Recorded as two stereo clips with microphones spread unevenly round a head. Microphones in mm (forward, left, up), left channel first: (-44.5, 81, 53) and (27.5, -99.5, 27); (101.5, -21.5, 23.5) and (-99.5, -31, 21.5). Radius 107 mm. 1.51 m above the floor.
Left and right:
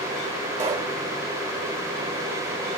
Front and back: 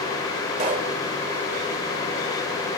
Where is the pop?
125° right, 3 m.